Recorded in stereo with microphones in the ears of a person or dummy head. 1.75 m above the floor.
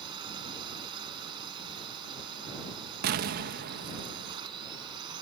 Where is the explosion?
45° right (ahead or behind).